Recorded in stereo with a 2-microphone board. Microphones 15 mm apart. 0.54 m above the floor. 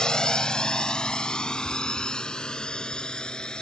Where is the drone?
65° left (ahead or behind); by 3.6 s 80° left.